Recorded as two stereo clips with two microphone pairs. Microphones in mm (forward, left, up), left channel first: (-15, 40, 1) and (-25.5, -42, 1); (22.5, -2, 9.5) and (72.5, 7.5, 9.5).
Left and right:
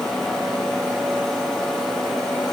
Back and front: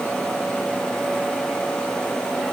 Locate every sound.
Only background noise.